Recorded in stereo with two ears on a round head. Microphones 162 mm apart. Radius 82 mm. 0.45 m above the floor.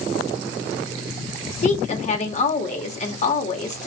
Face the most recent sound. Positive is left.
turn(degrees=40)  # may be behind; listen again after turning